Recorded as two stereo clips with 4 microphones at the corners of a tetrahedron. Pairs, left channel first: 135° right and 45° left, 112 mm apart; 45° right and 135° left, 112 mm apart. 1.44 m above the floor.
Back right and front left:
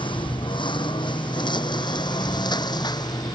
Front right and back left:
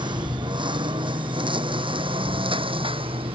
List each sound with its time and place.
0.0 s a lawn mower: straight behind; by 3.4 s 170° left